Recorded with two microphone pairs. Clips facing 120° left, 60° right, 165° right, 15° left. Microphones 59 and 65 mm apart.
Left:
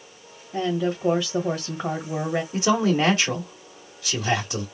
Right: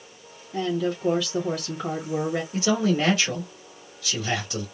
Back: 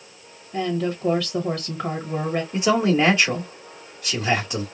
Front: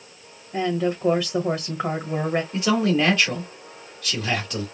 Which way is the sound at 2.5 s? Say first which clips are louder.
Left 2 dB, back 3 dB; 145° left.